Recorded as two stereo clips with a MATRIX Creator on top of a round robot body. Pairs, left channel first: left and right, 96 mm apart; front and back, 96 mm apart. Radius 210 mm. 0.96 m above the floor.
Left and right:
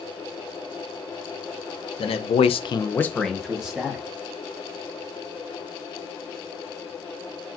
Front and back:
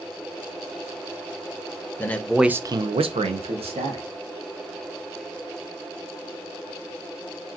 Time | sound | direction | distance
2.0 | a man speaking | 70° left | 0.8 m